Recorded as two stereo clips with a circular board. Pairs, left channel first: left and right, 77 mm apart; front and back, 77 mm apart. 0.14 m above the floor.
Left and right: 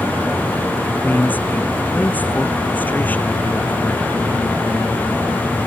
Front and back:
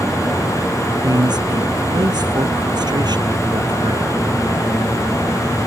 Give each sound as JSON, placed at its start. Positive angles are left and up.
{"t": 1.0, "sound": "a man speaking", "azimuth_deg": 160}